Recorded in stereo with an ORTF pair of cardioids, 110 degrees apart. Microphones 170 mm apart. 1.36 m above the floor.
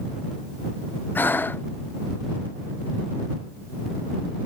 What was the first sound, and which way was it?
Breathing, 10° left.